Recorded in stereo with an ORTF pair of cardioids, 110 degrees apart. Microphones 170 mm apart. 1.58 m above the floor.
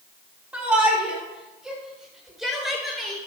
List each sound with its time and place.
0.5 s a shout: 5° right, 5.5 m; by 3.2 s straight ahead, 8.5 m